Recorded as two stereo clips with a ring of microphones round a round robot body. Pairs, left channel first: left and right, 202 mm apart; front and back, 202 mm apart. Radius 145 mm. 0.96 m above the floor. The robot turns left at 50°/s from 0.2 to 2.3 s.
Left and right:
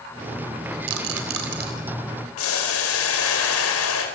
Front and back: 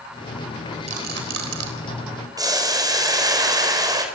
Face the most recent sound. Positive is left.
turn(degrees=110)